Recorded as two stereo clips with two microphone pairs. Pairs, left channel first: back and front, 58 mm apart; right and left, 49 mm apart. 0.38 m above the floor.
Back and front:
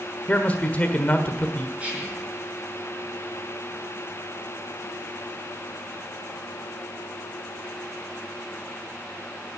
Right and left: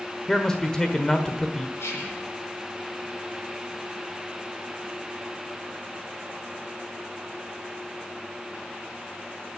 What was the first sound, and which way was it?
A man speaking, 150° right.